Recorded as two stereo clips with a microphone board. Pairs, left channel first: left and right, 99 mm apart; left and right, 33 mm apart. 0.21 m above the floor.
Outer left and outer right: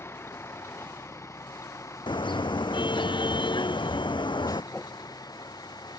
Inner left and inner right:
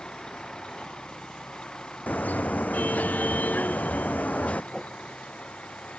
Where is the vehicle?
25° left (ahead or behind); by 6.0 s 40° left (ahead or behind).